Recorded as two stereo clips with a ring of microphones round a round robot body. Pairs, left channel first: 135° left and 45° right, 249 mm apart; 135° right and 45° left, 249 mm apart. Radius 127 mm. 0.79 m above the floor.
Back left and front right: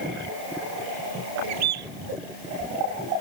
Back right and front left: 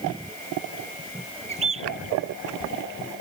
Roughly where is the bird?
Ahead.